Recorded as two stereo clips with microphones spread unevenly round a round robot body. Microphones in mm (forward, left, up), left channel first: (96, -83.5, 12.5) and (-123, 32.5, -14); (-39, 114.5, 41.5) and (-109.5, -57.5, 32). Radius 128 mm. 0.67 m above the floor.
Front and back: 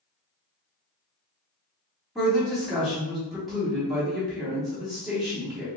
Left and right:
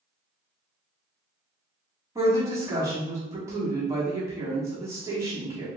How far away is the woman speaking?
About 1.0 m.